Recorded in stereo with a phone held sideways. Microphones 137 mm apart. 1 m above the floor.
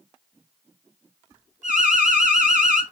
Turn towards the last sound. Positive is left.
turn(degrees=-70)  # may be behind; listen again after turning